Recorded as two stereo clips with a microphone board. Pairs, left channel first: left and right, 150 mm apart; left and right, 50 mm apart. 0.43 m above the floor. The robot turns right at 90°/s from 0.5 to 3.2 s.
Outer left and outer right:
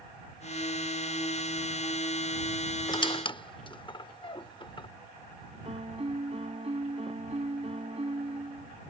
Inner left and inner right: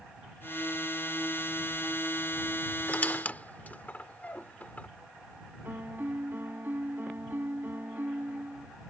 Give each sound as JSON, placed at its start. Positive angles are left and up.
{"t": 2.9, "sound": "a squeak", "side_deg": 30}
{"t": 5.7, "sound": "a piano", "side_deg": -45}